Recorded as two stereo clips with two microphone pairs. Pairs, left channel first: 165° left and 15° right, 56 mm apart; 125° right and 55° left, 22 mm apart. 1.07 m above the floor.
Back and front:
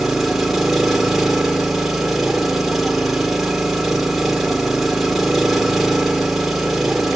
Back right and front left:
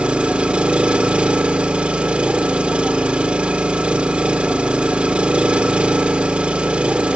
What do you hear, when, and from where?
0.0 s an engine running: 70° left, 2 m